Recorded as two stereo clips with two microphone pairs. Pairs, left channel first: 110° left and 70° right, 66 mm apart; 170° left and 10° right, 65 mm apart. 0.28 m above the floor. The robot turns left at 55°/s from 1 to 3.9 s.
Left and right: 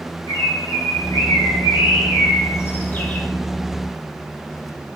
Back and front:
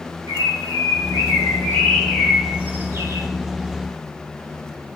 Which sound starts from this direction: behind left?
A bird, at 0.3 s.